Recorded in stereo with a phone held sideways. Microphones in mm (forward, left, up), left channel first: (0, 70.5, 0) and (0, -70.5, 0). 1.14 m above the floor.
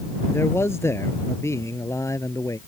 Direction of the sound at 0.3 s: 15° left (ahead or behind).